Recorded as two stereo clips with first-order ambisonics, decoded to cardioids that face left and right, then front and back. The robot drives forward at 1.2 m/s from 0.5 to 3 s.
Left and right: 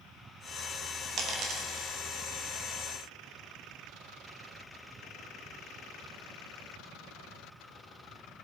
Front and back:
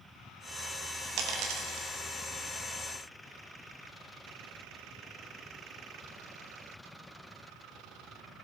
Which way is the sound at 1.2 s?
140° right.